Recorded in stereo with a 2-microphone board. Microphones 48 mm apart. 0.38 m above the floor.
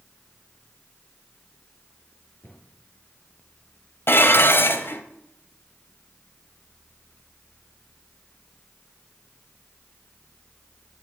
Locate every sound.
2.4 s a cupboard door: 55° left (ahead or behind), 4.5 m
4.1 s dishes clattering: 50° left (ahead or behind), 1.3 m